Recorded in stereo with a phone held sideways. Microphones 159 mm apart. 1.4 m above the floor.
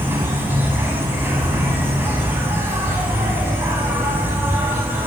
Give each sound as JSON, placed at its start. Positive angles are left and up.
{"t": 0.0, "sound": "an insect", "side_deg": -15, "distance_m": 1.4}